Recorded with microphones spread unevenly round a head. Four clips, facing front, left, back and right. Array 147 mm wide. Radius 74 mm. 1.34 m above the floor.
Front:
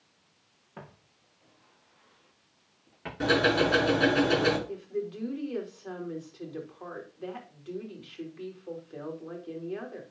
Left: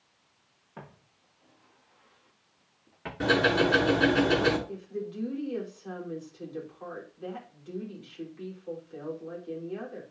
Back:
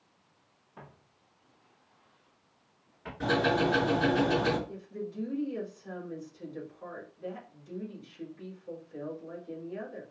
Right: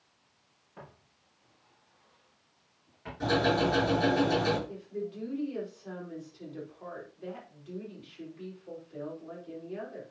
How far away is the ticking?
About 6.5 m.